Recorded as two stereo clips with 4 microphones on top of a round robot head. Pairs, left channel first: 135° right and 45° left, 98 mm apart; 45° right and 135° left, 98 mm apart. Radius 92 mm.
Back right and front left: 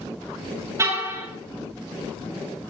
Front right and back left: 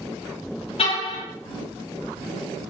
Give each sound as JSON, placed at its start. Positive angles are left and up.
{"t": 0.8, "sound": "a car horn", "azimuth_deg": -15, "distance_m": 9.5}